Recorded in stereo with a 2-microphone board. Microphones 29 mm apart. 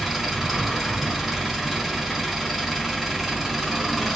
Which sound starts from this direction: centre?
An engine running, at 0.0 s.